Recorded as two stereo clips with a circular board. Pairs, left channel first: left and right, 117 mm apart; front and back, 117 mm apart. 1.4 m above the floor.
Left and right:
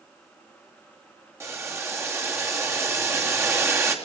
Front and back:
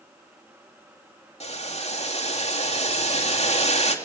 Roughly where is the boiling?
Ahead right.